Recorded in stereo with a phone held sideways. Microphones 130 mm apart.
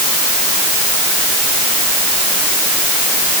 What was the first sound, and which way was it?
Only background noise.